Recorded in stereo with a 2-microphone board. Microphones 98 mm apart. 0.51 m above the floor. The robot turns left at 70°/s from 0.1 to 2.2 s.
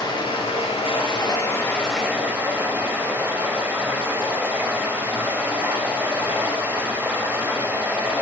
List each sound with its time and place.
0.0 s running water: 130° left, 1.4 m; by 8.2 s 20° right, 1.4 m